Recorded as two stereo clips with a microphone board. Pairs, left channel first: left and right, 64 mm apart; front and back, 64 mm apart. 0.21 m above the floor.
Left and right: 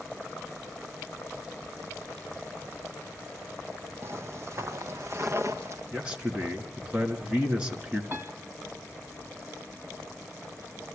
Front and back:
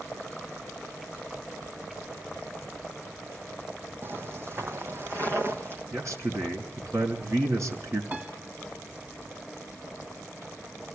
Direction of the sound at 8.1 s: 130° right.